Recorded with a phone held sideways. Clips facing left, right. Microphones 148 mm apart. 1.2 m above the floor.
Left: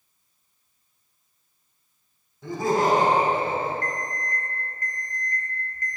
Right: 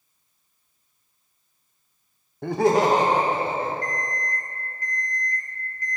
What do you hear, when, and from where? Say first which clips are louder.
2.4 s laughter: right 4 dB; 60° right (ahead or behind), 0.6 m; by 3.7 s 85° right, 2.0 m
3.8 s an alarm clock: right 1 dB; 50° left (ahead or behind), 0.8 m